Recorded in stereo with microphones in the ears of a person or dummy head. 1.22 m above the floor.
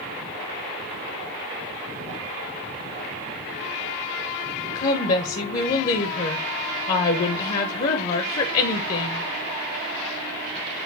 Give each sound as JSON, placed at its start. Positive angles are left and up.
{"t": 4.8, "sound": "a woman speaking", "side_deg": 35, "distance_m": 0.7}